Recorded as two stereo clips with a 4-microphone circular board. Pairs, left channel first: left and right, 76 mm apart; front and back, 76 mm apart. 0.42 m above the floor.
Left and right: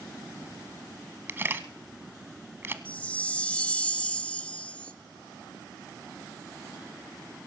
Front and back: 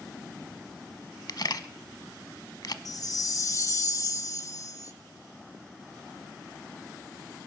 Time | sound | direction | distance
1.3 | a camera shutter | 30° right | 0.9 m
2.9 | a chime | 20° left | 0.7 m